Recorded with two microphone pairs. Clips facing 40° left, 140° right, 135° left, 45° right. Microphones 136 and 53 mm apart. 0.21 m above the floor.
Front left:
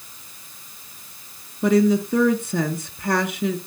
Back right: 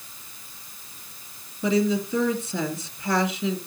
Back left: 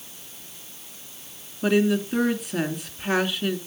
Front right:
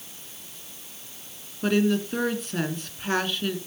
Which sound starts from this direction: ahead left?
A woman speaking, at 1.6 s.